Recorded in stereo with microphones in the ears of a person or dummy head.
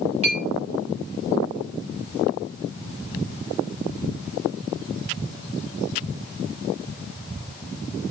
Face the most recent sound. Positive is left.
turn(degrees=-35)  # may be behind; listen again after turning